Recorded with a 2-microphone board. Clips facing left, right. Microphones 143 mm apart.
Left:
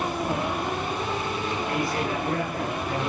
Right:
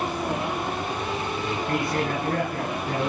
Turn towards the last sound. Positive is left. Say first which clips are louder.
# right 2 dB
turn(degrees=-50)  # may be behind; listen again after turning